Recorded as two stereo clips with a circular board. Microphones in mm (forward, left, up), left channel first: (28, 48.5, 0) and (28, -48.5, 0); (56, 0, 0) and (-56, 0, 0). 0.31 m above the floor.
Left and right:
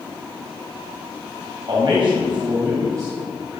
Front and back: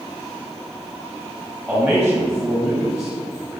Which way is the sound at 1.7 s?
100° right.